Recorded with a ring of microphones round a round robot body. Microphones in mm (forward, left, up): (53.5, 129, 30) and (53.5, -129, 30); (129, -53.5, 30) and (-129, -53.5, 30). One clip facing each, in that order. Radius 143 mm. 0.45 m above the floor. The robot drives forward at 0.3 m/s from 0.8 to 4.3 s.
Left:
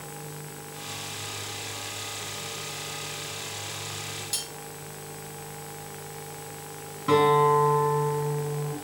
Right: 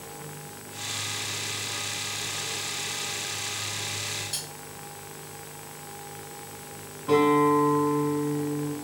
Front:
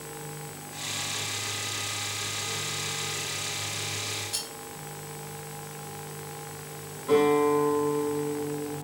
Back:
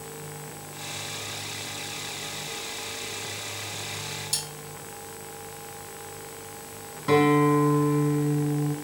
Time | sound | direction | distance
4.3 | cutlery clinking | straight behind | 1.9 m
7.1 | a guitar | 160° left | 1.0 m